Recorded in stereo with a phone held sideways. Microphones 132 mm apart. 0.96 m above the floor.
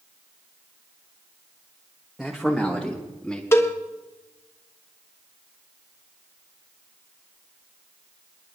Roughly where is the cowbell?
Centre.